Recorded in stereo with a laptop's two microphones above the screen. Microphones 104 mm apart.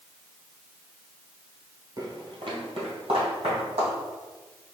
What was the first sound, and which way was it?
Footsteps, 35° right (ahead or behind).